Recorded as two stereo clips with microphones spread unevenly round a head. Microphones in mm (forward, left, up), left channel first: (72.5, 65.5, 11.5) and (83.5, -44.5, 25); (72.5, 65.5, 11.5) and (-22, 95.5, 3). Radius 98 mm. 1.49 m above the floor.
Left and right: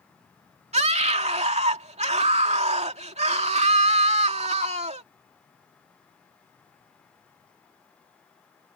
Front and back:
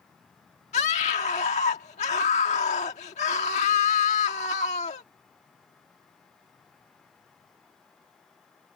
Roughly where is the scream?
Ahead right.